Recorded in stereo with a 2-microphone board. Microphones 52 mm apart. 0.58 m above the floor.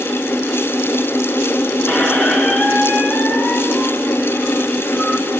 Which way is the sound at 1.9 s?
25° left (ahead or behind).